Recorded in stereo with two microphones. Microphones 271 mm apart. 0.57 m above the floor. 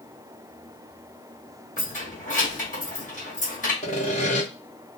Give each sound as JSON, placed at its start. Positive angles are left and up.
{"t": 1.8, "sound": "keys jangling", "side_deg": 25, "distance_m": 1.5}
{"t": 3.8, "sound": "sawing", "side_deg": 25, "distance_m": 1.2}